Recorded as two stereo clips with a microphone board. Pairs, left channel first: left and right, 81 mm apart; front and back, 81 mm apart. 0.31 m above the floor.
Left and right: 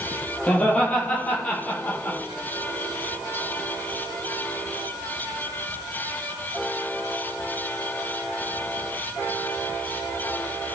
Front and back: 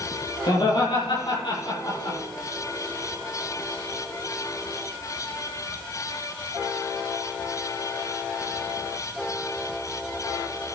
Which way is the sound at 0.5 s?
15° left.